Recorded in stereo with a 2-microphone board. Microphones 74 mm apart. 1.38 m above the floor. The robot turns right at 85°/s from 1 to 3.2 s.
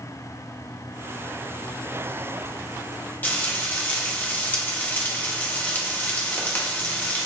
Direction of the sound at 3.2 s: 25° left (ahead or behind).